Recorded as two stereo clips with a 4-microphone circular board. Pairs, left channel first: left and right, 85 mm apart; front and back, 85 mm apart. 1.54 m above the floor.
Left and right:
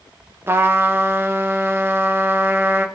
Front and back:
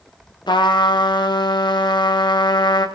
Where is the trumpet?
25° right, 1.1 m.